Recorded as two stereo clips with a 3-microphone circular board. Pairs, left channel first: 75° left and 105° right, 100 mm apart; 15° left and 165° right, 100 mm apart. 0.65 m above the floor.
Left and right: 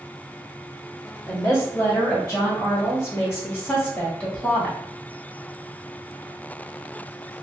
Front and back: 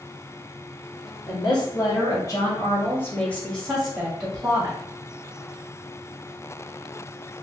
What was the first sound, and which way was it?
A woman speaking, 20° left.